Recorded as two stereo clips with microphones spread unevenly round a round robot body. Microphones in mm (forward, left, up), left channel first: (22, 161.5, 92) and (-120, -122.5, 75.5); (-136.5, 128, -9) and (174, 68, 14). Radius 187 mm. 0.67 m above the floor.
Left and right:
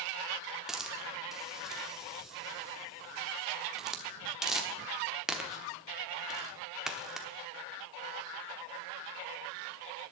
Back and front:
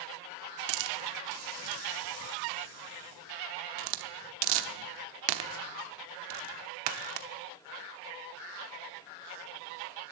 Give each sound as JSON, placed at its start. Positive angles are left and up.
{"t": 0.7, "sound": "a hiss", "azimuth_deg": -30, "distance_m": 0.9}